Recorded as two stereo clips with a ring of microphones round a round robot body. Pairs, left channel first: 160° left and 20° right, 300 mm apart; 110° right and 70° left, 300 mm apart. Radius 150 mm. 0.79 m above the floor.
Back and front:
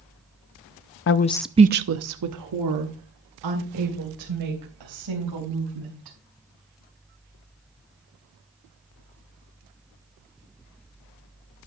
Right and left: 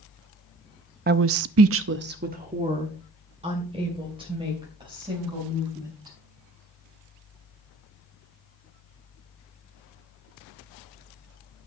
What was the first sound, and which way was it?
A woman speaking, 120° left.